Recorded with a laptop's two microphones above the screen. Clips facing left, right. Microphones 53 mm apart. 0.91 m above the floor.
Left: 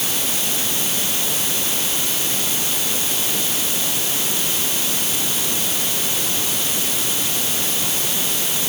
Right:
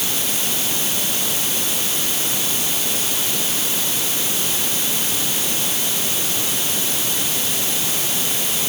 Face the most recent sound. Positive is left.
No sound to turn to.